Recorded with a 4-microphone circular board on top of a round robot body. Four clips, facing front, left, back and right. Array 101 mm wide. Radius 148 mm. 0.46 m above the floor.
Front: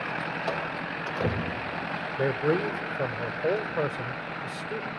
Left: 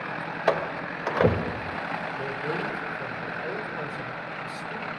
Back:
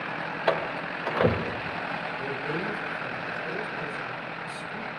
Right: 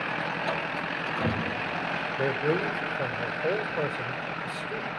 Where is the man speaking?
25° right, 2.5 m.